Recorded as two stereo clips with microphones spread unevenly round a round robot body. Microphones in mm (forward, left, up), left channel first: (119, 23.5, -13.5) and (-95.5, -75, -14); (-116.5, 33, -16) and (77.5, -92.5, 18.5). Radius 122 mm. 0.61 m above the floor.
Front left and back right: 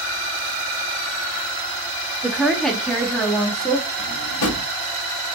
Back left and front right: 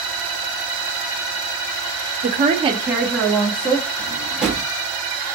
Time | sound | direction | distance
2.2 | a woman speaking | 70° right | 0.7 m
4.0 | a drawer | 55° left | 0.9 m